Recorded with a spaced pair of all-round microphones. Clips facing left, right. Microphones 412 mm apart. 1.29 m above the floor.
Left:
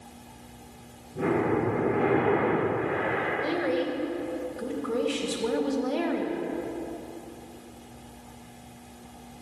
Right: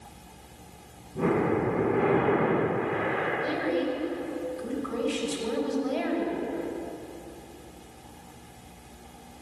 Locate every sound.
1.1 s breathing: 10° right (ahead or behind), 5.5 m
3.4 s a woman speaking: 80° left, 2.5 m